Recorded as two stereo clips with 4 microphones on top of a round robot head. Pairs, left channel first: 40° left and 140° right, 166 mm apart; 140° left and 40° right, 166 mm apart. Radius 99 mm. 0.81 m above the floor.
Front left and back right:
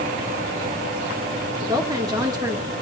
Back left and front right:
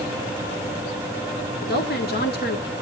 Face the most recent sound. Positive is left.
turn(degrees=155)